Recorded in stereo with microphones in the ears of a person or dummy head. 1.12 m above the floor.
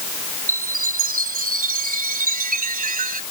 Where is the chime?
45° right (ahead or behind).